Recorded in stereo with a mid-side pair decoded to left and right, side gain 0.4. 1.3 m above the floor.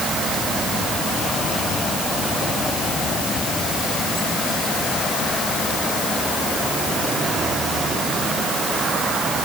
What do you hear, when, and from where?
Only background noise.